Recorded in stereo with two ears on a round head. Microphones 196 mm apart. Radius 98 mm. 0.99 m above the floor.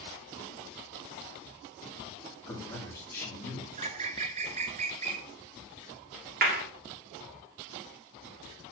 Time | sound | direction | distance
2.5 | a man speaking | 10° left (ahead or behind) | 2 m
3.8 | a bird | 30° right (ahead or behind) | 0.6 m
6.4 | a clap | 45° right (ahead or behind) | 2 m